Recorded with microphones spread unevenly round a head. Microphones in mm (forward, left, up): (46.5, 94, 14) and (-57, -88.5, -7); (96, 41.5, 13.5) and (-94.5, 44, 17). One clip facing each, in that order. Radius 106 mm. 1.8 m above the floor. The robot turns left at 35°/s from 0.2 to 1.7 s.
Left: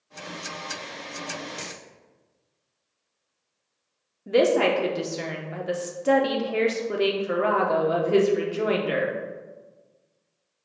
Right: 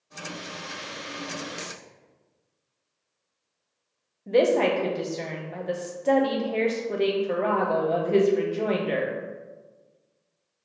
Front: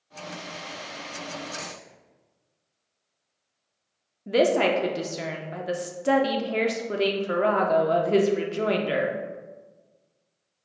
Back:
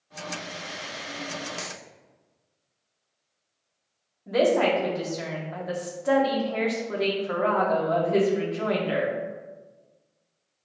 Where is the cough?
No cough in this recording.